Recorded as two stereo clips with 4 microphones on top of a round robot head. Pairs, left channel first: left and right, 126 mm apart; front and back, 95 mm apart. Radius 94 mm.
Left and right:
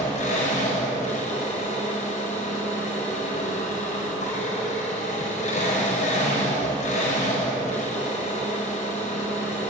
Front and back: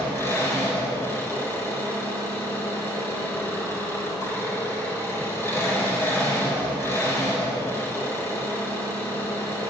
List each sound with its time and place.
0.0 s an engine running: 65° left, 5 m